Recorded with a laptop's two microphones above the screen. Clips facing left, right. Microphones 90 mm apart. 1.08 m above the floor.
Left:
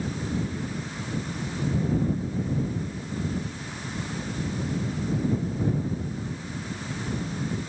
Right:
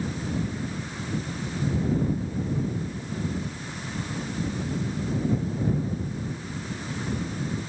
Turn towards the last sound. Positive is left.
No sound to turn to.